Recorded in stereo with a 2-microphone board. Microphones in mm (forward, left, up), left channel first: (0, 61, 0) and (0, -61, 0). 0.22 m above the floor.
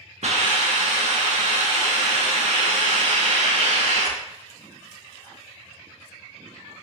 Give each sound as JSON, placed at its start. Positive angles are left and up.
{"t": 0.2, "sound": "a hiss", "side_deg": -70, "distance_m": 0.8}